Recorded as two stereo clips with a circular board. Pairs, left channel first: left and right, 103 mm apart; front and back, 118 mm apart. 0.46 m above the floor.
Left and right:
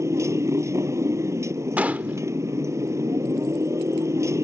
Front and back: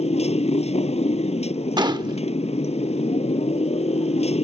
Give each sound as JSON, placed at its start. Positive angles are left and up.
{"t": 0.0, "sound": "a motorcycle", "azimuth_deg": -25}
{"t": 1.8, "sound": "a gunshot", "azimuth_deg": -155}